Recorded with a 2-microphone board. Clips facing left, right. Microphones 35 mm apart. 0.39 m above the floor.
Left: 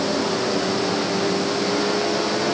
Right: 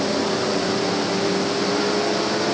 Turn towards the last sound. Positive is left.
No sound to turn to.